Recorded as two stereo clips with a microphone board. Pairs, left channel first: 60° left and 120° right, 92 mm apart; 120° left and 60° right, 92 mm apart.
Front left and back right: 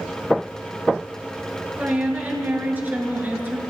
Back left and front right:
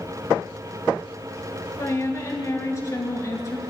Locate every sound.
1.8 s a woman speaking: 170° left, 3 m